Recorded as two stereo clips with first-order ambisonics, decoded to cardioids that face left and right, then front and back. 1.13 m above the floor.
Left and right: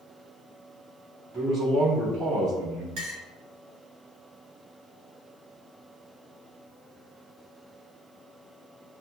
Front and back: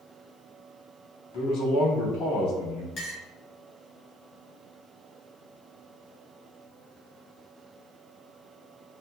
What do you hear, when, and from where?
1.3 s a man speaking: 25° right, 1.9 m
3.0 s a clink: 55° right, 1.7 m